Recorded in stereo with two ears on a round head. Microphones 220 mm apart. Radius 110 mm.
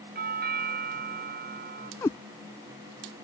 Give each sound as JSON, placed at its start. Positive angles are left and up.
{"t": 0.1, "sound": "a doorbell", "side_deg": -40}
{"t": 2.0, "sound": "a cat meowing", "side_deg": 10}